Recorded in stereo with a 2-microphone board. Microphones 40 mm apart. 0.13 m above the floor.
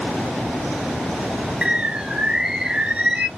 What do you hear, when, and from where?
1.6 s a bird: 20° right (ahead or behind), 0.8 m